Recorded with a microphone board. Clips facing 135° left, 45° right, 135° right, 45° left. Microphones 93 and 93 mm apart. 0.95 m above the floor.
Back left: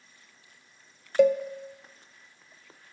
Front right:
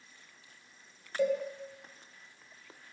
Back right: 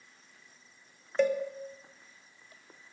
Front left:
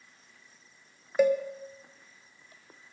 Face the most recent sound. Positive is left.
turn(degrees=130)